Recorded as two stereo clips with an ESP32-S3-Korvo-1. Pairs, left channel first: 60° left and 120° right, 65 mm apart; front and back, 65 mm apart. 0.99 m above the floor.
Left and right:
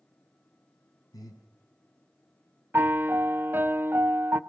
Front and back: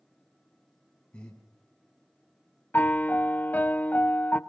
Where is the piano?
60° right, 0.8 m.